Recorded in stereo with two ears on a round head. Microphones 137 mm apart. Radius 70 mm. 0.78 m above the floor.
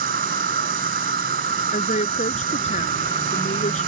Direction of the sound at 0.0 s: 60° right (ahead or behind).